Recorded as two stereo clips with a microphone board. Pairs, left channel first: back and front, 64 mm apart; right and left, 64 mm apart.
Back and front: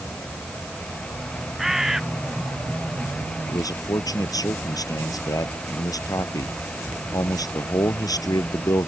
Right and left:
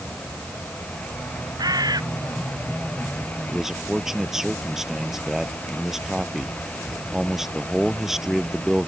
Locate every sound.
1.6 s a bird: 85° left
3.5 s a man speaking: 175° left